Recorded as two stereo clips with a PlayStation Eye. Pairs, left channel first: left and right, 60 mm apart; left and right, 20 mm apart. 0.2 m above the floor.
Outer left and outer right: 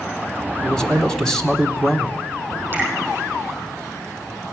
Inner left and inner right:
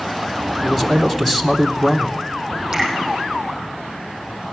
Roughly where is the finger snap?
Right.